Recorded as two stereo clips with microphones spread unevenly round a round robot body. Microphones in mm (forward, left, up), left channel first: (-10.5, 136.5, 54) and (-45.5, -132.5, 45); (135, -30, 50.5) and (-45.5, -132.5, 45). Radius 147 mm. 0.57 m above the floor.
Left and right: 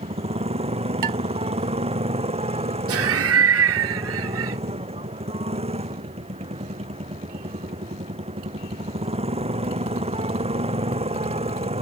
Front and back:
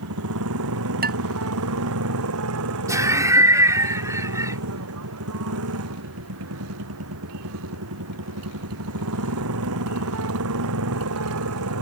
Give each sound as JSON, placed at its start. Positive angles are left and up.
{"t": 0.0, "sound": "a motorcycle", "azimuth_deg": -165}
{"t": 1.0, "sound": "dishes clattering", "azimuth_deg": -110}
{"t": 2.9, "sound": "laughter", "azimuth_deg": -75}